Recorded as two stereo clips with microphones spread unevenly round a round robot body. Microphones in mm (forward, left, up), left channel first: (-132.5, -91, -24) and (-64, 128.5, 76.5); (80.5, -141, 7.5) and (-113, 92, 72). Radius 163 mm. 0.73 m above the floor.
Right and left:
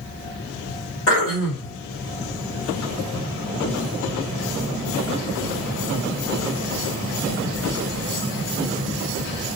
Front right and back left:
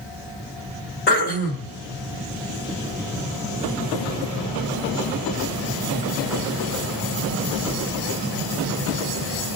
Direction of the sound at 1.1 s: 100° right.